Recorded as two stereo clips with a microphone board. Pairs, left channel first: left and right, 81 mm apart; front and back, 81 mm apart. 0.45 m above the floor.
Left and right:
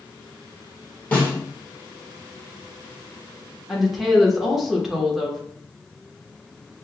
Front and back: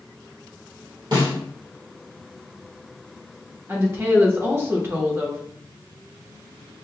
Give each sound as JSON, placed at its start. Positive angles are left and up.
{"t": 1.1, "sound": "a snare drum", "azimuth_deg": 165, "distance_m": 1.9}
{"t": 3.7, "sound": "a woman speaking", "azimuth_deg": -175, "distance_m": 1.0}